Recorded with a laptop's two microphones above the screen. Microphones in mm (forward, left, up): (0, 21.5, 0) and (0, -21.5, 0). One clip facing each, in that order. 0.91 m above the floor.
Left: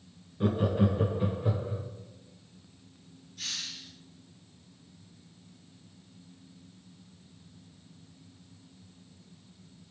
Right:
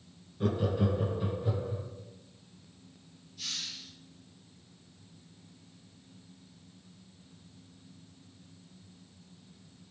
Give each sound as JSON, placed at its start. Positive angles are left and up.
{"t": 0.4, "sound": "laughter", "side_deg": 15, "distance_m": 0.8}
{"t": 3.4, "sound": "a hiss", "side_deg": 60, "distance_m": 3.0}